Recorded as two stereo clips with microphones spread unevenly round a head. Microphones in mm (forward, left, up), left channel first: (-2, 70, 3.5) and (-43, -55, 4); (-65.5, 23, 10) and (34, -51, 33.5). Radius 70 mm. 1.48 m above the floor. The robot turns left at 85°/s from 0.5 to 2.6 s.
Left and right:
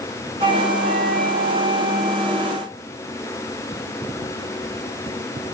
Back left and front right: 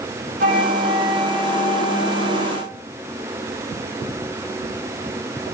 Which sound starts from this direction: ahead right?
A flute, at 0.4 s.